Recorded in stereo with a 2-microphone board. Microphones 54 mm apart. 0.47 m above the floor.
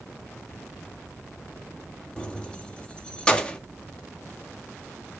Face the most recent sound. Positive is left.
turn(degrees=20)  # may be behind; listen again after turning